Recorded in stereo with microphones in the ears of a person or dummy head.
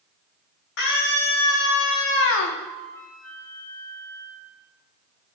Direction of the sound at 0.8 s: 65° left (ahead or behind).